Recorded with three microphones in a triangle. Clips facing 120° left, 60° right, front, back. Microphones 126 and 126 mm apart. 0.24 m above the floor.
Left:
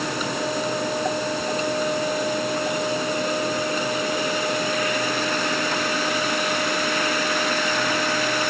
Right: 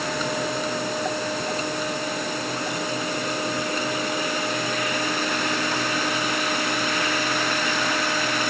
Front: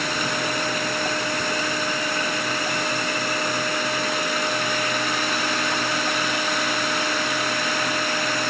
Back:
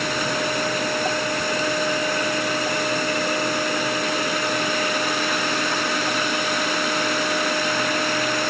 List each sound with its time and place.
Only background noise.